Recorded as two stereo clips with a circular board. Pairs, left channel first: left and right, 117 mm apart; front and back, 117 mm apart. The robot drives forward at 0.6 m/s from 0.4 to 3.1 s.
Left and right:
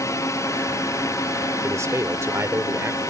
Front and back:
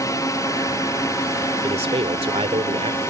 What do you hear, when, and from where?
0.0 s a drone: 45° left; by 3.1 s 50° left
1.6 s a man speaking: 150° right; by 3.0 s 160° right